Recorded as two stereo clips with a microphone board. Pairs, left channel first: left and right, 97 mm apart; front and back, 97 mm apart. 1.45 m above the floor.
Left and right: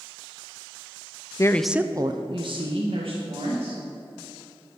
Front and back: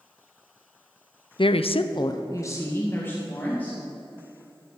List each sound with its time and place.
1.4 s a woman speaking: 35° left, 0.5 m; by 3.8 s 75° right, 2.5 m